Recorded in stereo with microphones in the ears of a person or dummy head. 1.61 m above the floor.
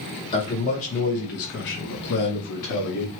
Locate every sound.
0.3 s a man speaking: 30° left (ahead or behind), 1.3 m; by 3.1 s 50° left (ahead or behind), 1.2 m